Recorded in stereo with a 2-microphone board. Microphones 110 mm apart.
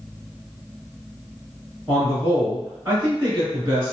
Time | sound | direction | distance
1.9 | a man speaking | 15° right (ahead or behind) | 1.6 m